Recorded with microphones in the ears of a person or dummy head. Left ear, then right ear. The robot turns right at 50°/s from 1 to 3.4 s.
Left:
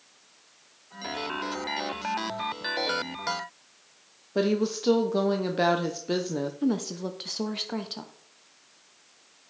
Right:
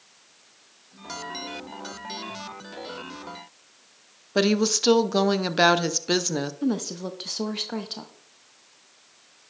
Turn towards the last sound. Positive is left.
turn(degrees=0)  # may be behind; listen again after turning